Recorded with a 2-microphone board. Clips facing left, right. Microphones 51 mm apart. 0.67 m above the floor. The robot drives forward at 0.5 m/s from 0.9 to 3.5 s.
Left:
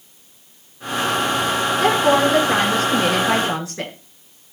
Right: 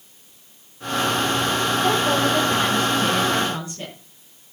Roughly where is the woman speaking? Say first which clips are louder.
Left 6 dB; left.